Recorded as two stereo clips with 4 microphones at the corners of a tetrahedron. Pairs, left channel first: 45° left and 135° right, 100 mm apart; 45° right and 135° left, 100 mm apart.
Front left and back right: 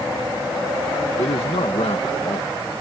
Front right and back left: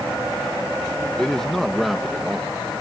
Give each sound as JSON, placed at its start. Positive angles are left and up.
{"t": 1.2, "sound": "a man speaking", "azimuth_deg": 35}